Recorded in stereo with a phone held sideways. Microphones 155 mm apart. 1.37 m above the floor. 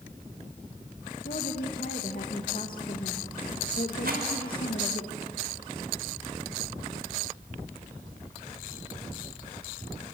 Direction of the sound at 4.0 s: 75° right (ahead or behind).